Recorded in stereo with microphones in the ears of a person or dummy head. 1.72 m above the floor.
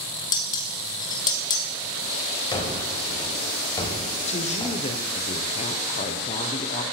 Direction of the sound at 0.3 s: 25° left (ahead or behind).